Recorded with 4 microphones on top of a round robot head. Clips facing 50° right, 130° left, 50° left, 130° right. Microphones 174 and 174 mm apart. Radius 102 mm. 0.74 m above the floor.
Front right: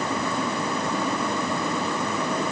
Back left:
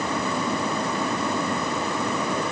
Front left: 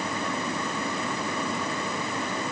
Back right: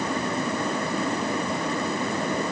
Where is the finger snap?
No finger snap in this recording.